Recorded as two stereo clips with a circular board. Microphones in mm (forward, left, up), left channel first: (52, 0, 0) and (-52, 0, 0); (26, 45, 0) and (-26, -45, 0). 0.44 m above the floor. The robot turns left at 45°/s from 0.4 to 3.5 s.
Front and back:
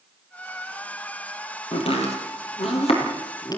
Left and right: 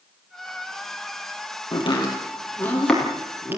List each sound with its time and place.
1.7 s chopping: 30° left, 5 m; by 3.6 s 50° right, 5 m